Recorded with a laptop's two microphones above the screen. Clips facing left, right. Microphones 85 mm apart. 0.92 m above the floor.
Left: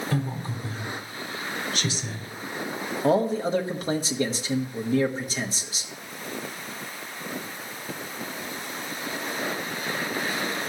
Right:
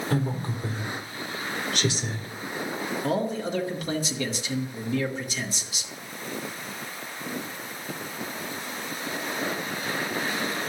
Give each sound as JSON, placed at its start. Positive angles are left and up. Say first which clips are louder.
{"t": 0.1, "sound": "a woman speaking", "louder": "right 2 dB", "side_deg": -65, "distance_m": 2.0}
{"t": 3.0, "sound": "a man speaking", "louder": "left 6 dB", "side_deg": 35, "distance_m": 1.0}